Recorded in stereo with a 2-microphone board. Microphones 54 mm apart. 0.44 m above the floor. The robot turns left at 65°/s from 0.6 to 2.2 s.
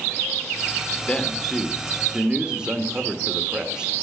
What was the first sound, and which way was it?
A man speaking, 45° left.